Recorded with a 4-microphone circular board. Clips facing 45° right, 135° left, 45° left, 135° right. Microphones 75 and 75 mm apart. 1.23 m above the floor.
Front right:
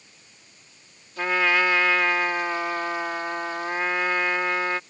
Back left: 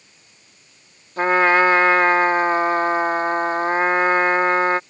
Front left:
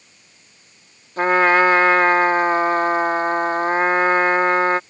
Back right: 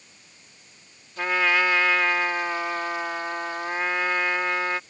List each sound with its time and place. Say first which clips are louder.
1.2 s a trumpet: back left 7 dB, front left 8 dB; 90° left